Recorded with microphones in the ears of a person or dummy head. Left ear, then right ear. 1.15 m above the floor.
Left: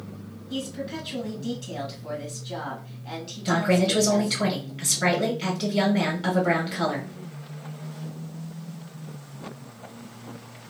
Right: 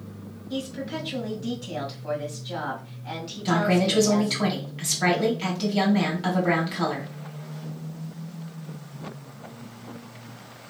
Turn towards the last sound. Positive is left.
turn(degrees=-5)  # may be behind; listen again after turning